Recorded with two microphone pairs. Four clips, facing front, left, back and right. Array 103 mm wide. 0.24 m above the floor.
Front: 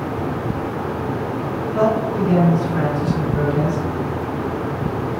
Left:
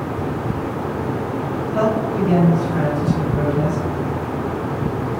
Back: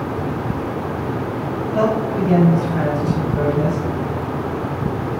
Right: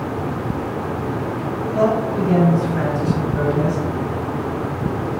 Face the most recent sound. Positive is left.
turn(degrees=-70)